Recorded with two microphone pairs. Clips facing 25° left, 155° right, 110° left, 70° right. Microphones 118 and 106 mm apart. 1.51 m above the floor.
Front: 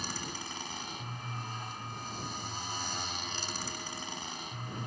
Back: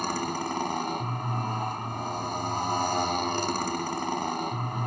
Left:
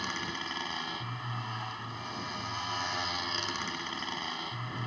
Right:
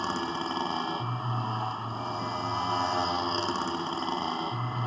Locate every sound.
0.0 s a motorcycle: 120° right